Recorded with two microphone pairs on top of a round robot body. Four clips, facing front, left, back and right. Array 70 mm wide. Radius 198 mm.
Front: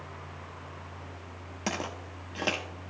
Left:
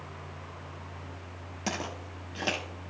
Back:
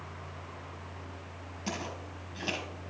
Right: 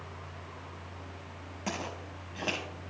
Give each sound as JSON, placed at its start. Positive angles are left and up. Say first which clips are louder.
{"t": 1.7, "sound": "footsteps", "louder": "left 2 dB, front 4 dB", "azimuth_deg": 0, "distance_m": 0.6}